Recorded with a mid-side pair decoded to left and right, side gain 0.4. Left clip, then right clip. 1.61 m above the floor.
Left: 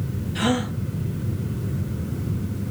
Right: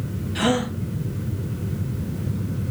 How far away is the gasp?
About 1.1 m.